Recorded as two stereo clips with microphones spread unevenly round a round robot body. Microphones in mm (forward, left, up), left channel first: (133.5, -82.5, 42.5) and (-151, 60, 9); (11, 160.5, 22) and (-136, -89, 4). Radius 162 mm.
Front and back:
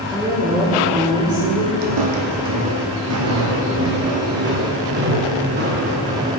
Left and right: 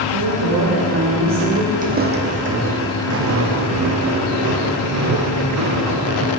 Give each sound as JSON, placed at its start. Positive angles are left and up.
{"t": 0.1, "sound": "a woman speaking", "azimuth_deg": -120, "distance_m": 1.9}
{"t": 1.8, "sound": "footsteps", "azimuth_deg": 175, "distance_m": 1.6}